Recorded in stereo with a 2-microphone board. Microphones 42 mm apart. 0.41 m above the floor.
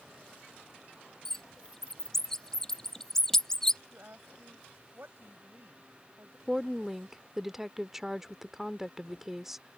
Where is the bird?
10° left (ahead or behind).